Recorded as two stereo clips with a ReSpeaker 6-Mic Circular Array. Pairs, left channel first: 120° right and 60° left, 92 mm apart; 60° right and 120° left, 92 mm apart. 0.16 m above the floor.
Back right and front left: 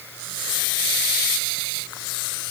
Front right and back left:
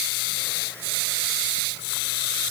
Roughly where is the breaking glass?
I don't hear breaking glass.